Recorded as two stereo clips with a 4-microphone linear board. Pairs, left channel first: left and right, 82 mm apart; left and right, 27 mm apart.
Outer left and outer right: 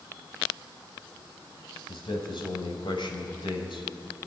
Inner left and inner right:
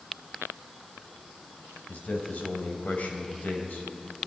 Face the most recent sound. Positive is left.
turn(degrees=65)  # may be behind; listen again after turning